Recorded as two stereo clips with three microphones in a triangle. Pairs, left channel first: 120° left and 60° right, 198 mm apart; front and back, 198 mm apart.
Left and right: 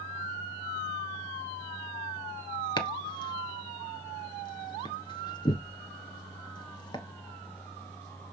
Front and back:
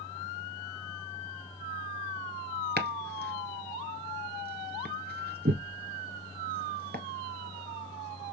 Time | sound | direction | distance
2.8 | chopping | straight behind | 1.5 m